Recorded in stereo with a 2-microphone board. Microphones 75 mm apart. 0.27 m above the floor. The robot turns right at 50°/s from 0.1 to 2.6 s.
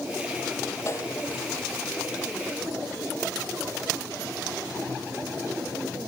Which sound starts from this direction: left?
A snare drum, at 0.9 s.